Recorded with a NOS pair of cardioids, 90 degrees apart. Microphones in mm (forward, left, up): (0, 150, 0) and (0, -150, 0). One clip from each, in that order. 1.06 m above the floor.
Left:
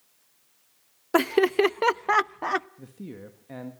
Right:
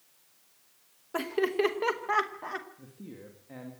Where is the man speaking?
45° left, 1.8 m.